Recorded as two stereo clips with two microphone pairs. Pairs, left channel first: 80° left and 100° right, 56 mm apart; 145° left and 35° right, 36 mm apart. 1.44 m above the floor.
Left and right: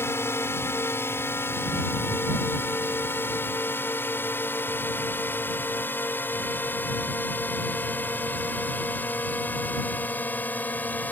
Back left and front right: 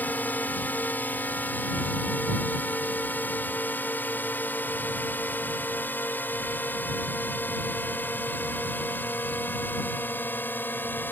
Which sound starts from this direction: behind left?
A drone, at 0.0 s.